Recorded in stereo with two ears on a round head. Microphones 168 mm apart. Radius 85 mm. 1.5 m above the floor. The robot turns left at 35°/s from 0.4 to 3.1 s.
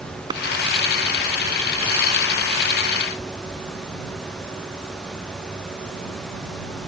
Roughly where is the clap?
Right.